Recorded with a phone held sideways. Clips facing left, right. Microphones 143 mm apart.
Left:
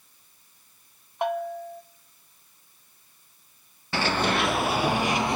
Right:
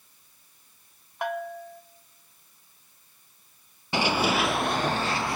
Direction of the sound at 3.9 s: 15° right (ahead or behind).